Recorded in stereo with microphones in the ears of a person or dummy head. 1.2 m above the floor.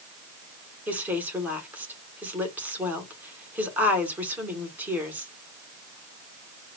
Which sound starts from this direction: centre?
A woman speaking, at 0.9 s.